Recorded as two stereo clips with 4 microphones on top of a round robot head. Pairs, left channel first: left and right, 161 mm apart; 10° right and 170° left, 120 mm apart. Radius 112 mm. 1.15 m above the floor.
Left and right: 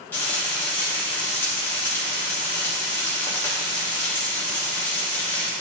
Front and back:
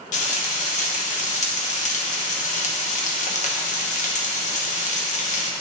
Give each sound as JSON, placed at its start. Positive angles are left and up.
{"t": 0.1, "sound": "frying", "azimuth_deg": 10, "distance_m": 1.0}